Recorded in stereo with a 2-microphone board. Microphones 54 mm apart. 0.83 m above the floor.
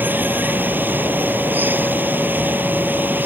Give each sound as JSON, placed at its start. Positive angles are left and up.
{"t": 0.0, "sound": "running water", "side_deg": -35}